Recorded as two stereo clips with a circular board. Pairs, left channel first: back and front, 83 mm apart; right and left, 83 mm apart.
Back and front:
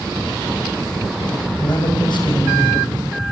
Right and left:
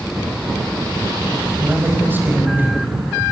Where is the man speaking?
155° left, 4.5 m.